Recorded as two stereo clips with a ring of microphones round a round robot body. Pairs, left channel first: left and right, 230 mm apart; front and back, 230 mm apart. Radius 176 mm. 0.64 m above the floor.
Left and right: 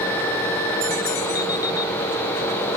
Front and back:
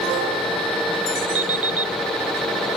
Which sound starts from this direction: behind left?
An alarm clock, at 1.4 s.